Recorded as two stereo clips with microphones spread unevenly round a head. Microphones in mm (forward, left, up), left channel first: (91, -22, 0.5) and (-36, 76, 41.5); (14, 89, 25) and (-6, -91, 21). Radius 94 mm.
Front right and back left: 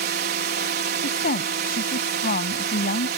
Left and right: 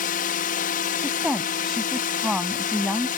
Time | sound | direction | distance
0.0 | a drone | 125° left | ?
1.0 | a woman speaking | 10° right | ?